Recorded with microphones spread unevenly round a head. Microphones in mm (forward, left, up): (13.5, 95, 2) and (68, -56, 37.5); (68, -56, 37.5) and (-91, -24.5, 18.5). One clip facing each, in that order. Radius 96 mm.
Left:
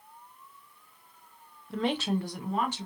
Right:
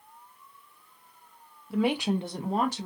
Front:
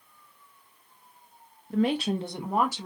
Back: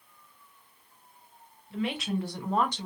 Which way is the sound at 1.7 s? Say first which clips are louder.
Right 3 dB, front 6 dB; straight ahead.